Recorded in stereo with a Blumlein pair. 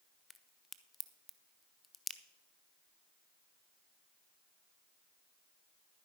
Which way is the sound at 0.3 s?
10° left.